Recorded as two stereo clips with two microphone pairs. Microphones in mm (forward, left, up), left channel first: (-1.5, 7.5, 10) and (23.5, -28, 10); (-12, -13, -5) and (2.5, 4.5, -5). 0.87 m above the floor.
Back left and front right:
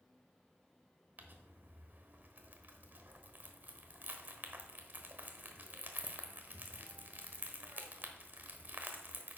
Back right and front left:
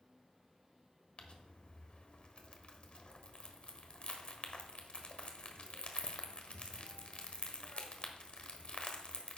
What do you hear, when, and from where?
1.2 s crumpling: 95° right, 1.1 m